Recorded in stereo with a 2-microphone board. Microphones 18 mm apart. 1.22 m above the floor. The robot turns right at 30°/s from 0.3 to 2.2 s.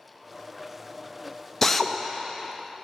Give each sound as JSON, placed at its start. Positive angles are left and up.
{"t": 1.6, "sound": "a drill", "side_deg": 20, "distance_m": 0.7}